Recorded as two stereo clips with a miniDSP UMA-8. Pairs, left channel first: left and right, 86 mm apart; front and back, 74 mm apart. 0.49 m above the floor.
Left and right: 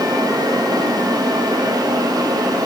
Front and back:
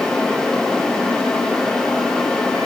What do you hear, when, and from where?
Only background noise.